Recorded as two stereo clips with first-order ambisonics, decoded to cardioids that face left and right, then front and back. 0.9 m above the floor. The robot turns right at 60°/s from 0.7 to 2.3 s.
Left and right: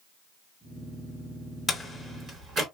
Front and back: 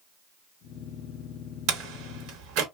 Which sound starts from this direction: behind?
A door slam, at 1.7 s.